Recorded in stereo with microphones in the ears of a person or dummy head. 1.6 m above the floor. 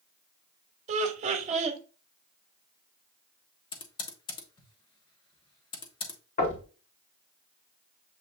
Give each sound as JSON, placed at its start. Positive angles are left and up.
{"t": 0.9, "sound": "laughter", "side_deg": -40, "distance_m": 1.0}
{"t": 3.7, "sound": "typing on a keyboard", "side_deg": 25, "distance_m": 1.0}
{"t": 6.4, "sound": "knocking", "side_deg": 45, "distance_m": 1.8}